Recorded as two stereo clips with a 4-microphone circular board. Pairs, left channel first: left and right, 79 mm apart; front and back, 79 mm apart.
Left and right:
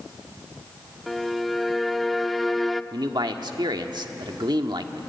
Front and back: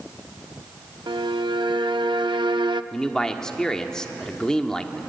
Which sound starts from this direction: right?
A man speaking, at 2.9 s.